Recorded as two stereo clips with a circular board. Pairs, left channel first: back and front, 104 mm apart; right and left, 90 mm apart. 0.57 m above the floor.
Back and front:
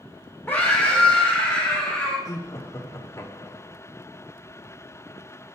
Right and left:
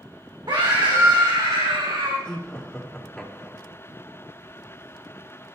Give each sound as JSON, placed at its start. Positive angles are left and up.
{"t": 0.5, "sound": "a scream", "azimuth_deg": 110, "distance_m": 1.5}
{"t": 2.2, "sound": "laughter", "azimuth_deg": -165, "distance_m": 1.3}